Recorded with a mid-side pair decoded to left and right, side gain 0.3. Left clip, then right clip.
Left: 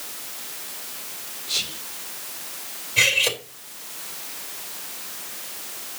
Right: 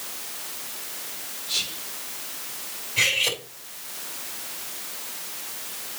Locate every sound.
1.5 s whispering: 40° left, 1.1 m
3.0 s cutlery clinking: 60° left, 3 m